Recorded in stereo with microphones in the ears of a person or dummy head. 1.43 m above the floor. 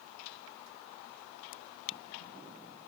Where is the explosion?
No explosion in this recording.